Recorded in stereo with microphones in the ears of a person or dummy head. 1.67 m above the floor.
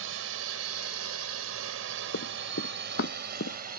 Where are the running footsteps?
65° left (ahead or behind); by 3.8 s 55° left (ahead or behind).